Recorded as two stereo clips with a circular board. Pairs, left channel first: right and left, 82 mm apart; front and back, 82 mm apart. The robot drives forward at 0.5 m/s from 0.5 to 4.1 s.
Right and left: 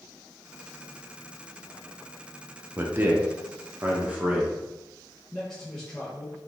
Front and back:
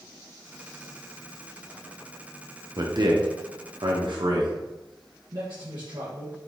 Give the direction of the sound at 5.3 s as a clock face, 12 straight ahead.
6 o'clock.